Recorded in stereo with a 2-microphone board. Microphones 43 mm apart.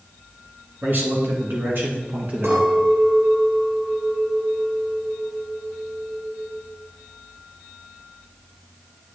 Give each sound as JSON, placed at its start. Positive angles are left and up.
{"t": 0.8, "sound": "a man speaking", "side_deg": -50, "distance_m": 2.5}
{"t": 2.4, "sound": "a clink", "side_deg": -70, "distance_m": 2.5}